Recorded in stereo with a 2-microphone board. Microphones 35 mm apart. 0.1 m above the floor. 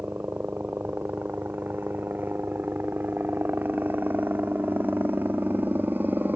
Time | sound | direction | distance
0.0 | a helicopter | 65° right (ahead or behind) | ?